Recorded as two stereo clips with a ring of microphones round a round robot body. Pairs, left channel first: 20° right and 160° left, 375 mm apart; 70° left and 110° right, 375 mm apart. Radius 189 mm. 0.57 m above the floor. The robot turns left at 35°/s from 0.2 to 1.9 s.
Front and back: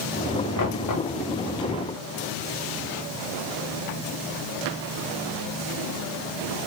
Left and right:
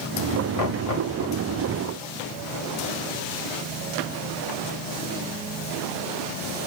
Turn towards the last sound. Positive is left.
turn(degrees=-20)